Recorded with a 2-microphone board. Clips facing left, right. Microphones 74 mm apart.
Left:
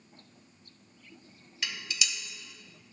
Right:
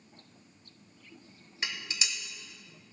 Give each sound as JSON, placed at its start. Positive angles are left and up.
{"t": 1.6, "sound": "dishes clattering", "side_deg": -30, "distance_m": 0.9}